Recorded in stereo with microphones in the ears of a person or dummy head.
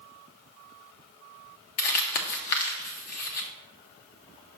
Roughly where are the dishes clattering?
I don't hear dishes clattering.